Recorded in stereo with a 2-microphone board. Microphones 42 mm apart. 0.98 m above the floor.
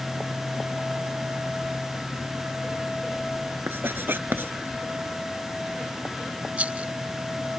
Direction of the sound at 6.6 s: 35° right (ahead or behind).